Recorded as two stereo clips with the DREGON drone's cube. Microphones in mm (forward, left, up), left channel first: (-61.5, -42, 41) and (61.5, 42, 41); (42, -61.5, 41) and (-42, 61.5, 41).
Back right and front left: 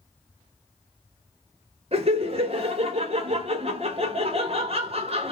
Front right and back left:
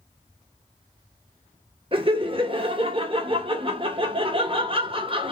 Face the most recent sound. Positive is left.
turn(degrees=75)